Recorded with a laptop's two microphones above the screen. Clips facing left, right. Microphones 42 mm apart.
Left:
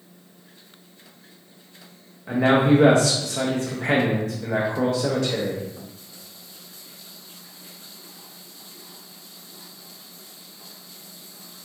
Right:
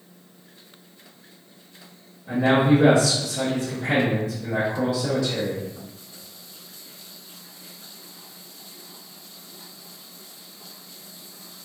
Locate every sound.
2.3 s a man speaking: 55° left (ahead or behind), 0.6 m